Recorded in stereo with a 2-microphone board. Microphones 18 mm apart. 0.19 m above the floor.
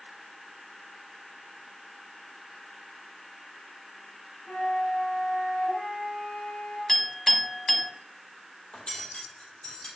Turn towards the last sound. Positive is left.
turn(degrees=70)  # may be behind; listen again after turning